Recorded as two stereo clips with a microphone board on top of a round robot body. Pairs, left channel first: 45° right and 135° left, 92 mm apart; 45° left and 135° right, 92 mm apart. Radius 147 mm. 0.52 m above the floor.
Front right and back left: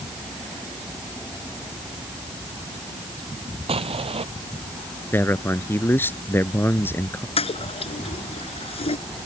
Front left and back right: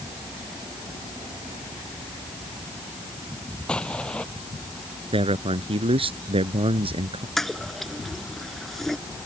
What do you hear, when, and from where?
3.7 s an explosion: 125° left
5.1 s a man speaking: 115° right
7.4 s a toilet flushing: 40° right